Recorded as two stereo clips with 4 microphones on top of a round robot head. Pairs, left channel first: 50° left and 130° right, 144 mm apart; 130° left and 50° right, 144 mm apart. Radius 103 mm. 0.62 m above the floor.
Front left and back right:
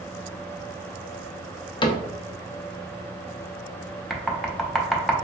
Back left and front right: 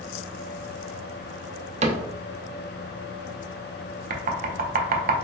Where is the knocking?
40° right, 0.6 m.